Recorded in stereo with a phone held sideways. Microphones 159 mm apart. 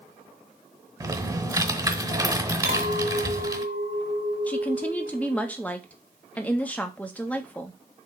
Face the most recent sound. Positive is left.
turn(degrees=10)  # may be behind; listen again after turning